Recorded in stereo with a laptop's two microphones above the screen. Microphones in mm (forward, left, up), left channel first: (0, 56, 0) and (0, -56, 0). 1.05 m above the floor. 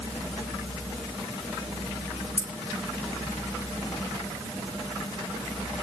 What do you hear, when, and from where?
2.4 s keys jangling: 75° left (ahead or behind), 2.5 m